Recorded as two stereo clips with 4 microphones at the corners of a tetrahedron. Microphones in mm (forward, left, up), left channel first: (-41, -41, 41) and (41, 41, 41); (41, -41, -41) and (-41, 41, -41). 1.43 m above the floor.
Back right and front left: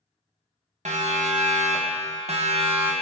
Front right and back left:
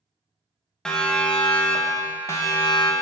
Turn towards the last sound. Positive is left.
turn(degrees=5)